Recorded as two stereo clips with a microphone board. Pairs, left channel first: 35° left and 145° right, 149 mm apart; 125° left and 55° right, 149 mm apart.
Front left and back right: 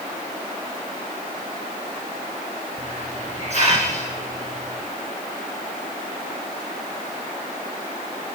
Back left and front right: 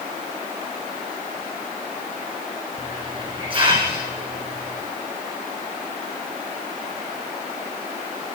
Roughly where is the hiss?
Right.